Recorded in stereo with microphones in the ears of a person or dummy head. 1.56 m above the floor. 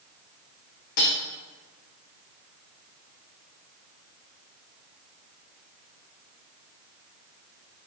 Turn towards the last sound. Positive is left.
turn(degrees=50)  # may be behind; listen again after turning